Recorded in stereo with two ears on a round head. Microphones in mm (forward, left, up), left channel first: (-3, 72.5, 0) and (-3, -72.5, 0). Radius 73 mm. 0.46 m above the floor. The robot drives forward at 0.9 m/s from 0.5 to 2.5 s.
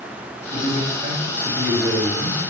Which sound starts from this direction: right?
A man speaking, at 0.5 s.